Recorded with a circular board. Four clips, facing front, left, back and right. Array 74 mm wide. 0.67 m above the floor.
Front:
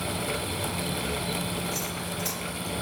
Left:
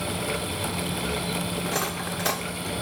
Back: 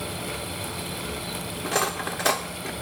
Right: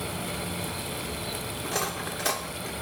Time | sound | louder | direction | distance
1.6 | cutlery clinking | left 2 dB, back 6 dB | 175° left | 1.1 m